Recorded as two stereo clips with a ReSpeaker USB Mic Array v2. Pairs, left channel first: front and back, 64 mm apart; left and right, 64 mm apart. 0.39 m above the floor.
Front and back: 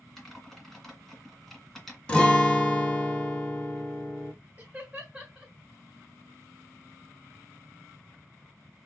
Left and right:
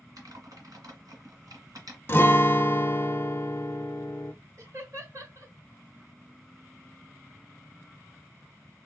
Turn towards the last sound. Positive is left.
turn(degrees=-105)